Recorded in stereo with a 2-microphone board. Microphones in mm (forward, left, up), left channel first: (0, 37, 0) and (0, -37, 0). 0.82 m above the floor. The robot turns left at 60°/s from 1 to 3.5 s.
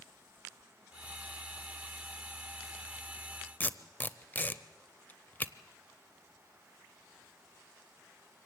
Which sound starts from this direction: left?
Tape being pulled, at 3.6 s.